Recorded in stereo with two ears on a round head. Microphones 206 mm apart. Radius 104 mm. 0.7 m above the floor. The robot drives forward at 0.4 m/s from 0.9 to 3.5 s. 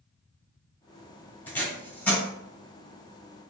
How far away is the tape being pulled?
About 1.7 m.